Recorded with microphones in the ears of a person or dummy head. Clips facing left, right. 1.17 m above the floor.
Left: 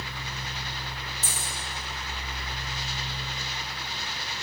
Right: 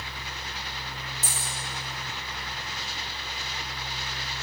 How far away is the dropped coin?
About 3.5 m.